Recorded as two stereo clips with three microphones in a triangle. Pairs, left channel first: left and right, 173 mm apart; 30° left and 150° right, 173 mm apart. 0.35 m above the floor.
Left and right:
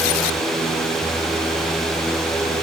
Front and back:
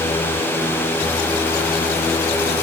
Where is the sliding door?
No sliding door in this recording.